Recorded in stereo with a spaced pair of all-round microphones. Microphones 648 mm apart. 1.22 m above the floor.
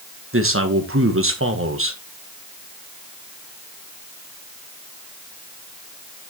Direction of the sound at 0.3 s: 20° right (ahead or behind).